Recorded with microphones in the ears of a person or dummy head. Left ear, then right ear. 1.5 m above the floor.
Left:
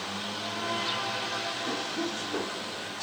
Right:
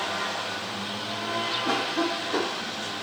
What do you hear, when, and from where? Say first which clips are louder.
1.6 s a cough: right 6 dB; 75° right (ahead or behind)